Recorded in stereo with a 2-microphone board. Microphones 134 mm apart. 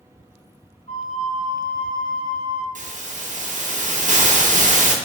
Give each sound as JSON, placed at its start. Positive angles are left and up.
{"t": 0.9, "sound": "a flute", "side_deg": 65, "distance_m": 1.0}
{"t": 2.8, "sound": "a hiss", "side_deg": -70, "distance_m": 0.5}